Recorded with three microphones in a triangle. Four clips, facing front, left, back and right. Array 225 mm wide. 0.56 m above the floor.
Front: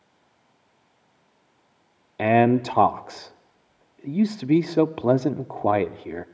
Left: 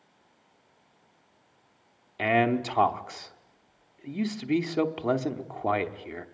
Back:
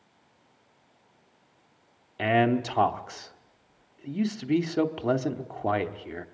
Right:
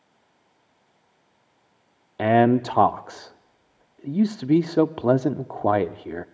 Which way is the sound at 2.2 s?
50° right.